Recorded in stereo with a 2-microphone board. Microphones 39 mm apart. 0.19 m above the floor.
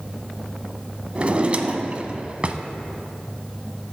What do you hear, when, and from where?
1.1 s a drawer: 35° right (ahead or behind), 0.7 m